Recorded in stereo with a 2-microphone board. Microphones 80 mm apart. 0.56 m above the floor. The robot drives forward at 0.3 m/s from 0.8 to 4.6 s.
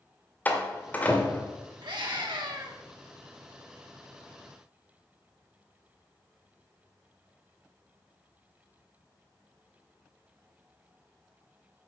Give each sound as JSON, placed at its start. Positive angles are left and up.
{"t": 0.5, "sound": "a door slam", "side_deg": 20, "distance_m": 1.6}
{"t": 1.8, "sound": "a scream", "side_deg": -70, "distance_m": 2.5}